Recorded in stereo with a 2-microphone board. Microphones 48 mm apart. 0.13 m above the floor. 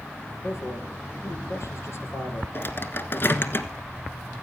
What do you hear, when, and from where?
0.4 s a man speaking: 60° left (ahead or behind), 3 m
2.5 s a microwave: 45° left (ahead or behind), 1.3 m